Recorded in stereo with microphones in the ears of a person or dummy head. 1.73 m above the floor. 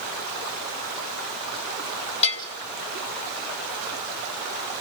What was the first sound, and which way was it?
A bell, 35° left (ahead or behind).